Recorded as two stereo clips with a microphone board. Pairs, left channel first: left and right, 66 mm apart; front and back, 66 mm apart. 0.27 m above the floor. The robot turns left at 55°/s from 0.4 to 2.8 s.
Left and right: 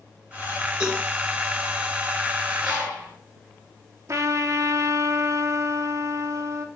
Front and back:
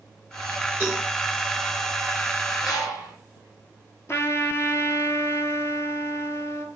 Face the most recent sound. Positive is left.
turn(degrees=-45)